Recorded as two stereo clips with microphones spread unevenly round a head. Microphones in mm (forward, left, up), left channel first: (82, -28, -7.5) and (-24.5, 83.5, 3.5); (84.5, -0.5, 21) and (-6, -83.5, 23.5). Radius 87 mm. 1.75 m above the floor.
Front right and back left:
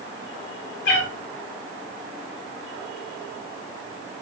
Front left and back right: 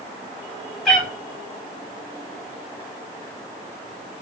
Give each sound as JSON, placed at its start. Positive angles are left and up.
{"t": 0.8, "sound": "a cat meowing", "azimuth_deg": -45, "distance_m": 5.0}